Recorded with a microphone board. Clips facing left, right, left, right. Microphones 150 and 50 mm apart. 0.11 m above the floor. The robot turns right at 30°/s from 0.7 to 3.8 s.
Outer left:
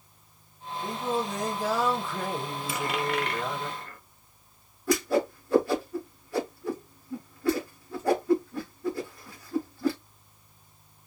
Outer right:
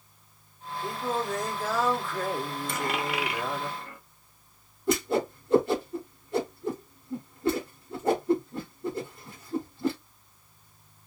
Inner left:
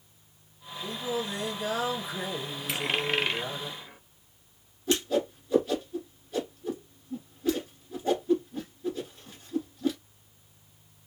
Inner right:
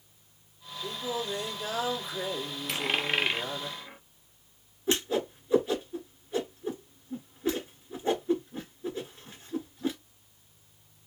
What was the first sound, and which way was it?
Singing, 20° left (ahead or behind).